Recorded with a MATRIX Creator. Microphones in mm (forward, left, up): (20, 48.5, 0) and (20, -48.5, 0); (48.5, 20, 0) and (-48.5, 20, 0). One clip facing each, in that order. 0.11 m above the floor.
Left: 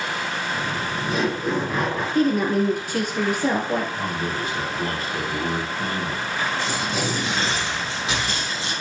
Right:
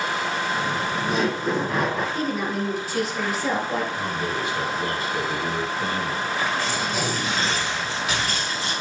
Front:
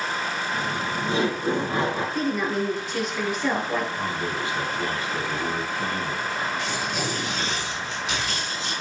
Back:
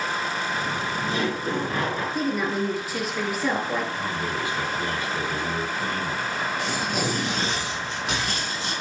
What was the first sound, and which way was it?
Laughter, straight ahead.